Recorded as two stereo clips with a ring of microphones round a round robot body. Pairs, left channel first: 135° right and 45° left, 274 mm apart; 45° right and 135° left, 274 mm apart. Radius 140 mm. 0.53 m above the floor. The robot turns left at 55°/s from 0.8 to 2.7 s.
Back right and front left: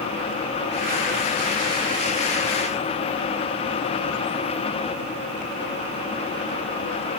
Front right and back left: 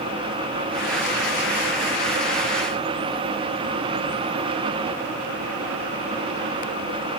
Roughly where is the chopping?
I don't hear chopping.